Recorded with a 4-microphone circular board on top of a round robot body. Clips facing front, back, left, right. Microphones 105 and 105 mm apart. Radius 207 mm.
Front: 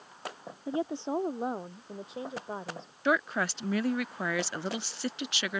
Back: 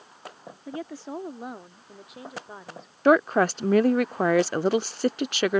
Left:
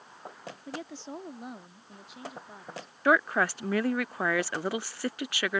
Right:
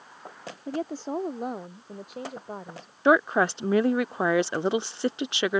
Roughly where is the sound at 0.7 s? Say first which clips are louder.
Front 4 dB, right 10 dB; ahead right.